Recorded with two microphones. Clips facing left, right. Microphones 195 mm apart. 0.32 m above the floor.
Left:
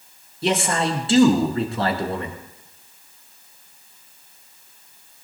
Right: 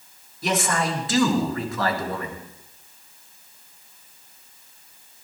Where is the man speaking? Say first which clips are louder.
Left 3 dB; 30° left (ahead or behind), 3.5 m.